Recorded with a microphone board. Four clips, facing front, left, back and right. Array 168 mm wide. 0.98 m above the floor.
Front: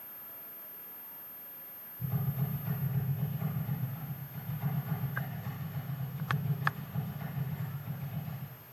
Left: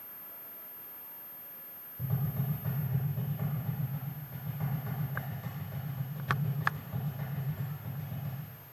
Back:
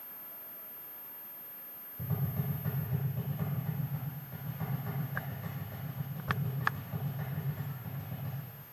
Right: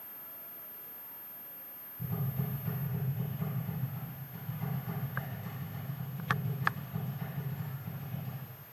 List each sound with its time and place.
2.0 s tapping: 145° left, 4.5 m